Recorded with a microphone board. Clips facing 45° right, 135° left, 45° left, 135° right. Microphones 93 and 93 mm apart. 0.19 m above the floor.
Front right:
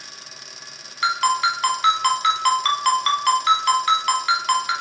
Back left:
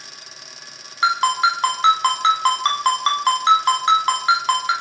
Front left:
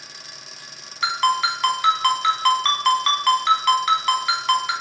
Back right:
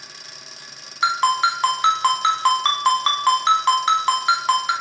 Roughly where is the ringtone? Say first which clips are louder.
Back left 2 dB, back right 2 dB; behind.